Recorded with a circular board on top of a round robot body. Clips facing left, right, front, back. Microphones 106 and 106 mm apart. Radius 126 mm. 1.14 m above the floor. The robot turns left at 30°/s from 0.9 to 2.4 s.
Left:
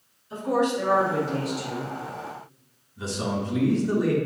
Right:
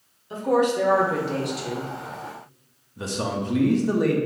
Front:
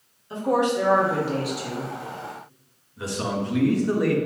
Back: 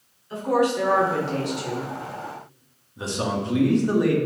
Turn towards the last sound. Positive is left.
turn(degrees=-115)